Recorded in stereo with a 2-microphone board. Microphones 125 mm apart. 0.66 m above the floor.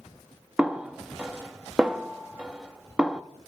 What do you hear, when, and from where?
0.6 s a snare drum: 5° right (ahead or behind), 0.6 m